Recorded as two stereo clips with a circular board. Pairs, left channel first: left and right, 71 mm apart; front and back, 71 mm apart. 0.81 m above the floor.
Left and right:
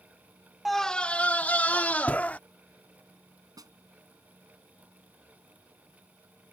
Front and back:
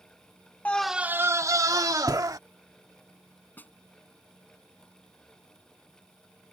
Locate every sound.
0.7 s a scream: straight ahead; by 2.4 s 160° left
3.6 s a snare drum: 65° right